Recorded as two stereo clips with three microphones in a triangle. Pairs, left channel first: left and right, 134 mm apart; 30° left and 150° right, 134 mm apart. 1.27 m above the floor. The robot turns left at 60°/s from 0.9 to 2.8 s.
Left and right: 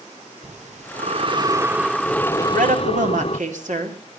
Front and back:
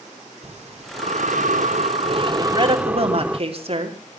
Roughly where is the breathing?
Behind right.